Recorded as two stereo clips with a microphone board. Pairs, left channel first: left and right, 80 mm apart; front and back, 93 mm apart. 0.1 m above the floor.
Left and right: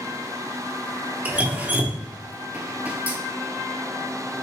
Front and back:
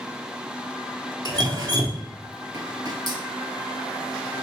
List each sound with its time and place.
1.2 s dripping: 155° right, 0.7 m